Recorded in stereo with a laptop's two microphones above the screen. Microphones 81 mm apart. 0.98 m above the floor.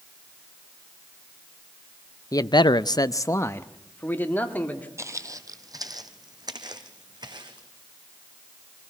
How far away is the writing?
No writing in this recording.